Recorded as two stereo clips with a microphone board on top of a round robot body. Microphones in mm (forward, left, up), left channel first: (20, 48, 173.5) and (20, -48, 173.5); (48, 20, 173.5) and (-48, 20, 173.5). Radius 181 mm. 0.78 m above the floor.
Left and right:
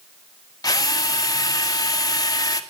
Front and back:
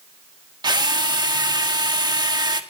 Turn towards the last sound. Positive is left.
turn(degrees=140)